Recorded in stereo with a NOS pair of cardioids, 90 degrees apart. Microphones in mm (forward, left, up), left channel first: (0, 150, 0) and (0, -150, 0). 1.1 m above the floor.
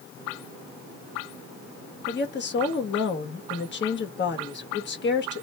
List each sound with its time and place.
2.1 s a woman speaking: 40° left, 1.5 m